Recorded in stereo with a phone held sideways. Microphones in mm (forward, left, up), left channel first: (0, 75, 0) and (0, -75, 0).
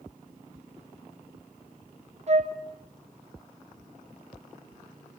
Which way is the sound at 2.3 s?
50° right (ahead or behind).